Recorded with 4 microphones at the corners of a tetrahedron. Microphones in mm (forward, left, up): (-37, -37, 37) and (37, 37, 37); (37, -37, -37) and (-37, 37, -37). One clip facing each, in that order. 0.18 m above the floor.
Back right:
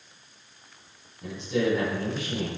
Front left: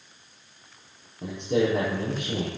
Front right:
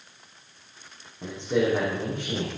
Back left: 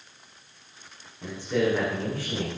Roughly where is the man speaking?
Ahead.